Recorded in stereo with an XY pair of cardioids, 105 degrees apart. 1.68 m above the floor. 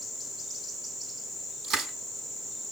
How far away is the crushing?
About 7 m.